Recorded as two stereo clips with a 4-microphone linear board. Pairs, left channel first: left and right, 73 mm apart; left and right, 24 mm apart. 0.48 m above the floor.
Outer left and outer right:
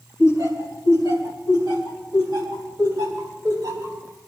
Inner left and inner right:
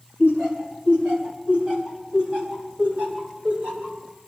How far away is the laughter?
About 5.5 m.